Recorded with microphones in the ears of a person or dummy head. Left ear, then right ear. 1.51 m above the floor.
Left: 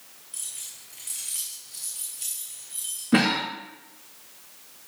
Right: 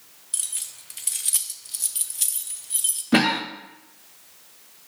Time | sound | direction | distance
0.3 | keys jangling | 35° right (ahead or behind) | 0.5 m
3.1 | a cough | 15° right (ahead or behind) | 0.6 m